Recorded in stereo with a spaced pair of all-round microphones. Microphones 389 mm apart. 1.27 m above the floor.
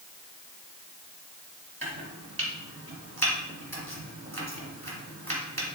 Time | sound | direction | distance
1.8 | chopping | 30° right (ahead or behind) | 2 m